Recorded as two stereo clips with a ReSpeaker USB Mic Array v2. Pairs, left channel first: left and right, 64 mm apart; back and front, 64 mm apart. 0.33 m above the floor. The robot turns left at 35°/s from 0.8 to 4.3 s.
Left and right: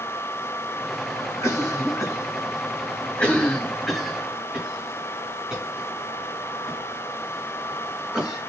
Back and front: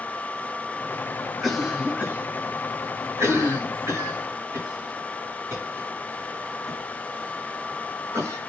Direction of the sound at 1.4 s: 85° left.